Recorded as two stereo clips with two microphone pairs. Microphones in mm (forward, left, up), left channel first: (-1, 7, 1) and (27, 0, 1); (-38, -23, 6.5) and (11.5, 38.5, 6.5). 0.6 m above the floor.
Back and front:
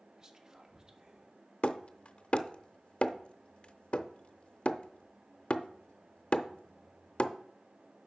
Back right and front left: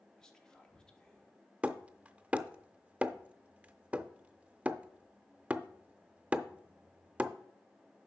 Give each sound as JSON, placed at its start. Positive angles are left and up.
{"t": 0.2, "sound": "whispering", "azimuth_deg": -55, "distance_m": 1.4}
{"t": 1.6, "sound": "hammering", "azimuth_deg": 125, "distance_m": 0.5}